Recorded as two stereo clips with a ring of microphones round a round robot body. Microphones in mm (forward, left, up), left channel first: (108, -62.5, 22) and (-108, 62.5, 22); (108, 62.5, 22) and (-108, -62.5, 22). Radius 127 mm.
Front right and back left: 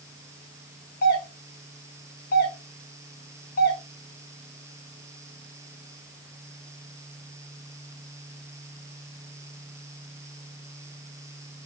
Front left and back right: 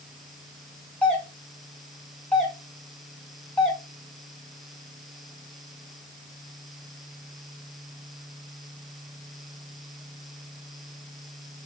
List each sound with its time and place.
1.0 s a doorbell: 55° right, 2 m